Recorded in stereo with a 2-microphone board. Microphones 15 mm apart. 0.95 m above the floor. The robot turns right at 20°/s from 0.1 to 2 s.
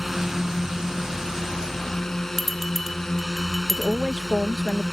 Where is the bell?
10° right (ahead or behind).